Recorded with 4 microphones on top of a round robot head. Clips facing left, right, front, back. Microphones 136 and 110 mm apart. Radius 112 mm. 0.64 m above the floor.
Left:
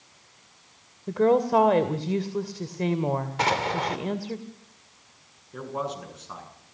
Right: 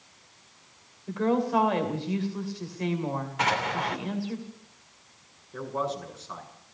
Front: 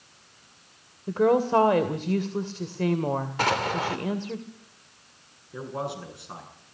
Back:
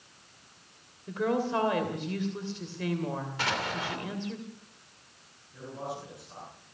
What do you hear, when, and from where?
1.1 s a woman speaking: 45° left, 2 m
3.4 s an explosion: 40° left, 3 m
5.5 s a man speaking: 20° left, 8 m